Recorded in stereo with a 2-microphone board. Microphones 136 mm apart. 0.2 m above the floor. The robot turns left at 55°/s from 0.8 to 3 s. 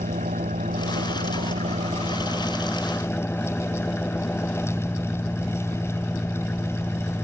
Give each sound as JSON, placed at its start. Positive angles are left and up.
{"t": 0.0, "sound": "an engine running", "azimuth_deg": -70}